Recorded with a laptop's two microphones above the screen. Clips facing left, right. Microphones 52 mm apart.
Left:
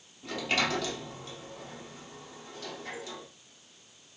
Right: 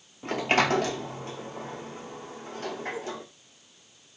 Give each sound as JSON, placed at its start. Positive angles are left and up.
{"t": 0.2, "sound": "a sliding door", "side_deg": -40, "distance_m": 0.8}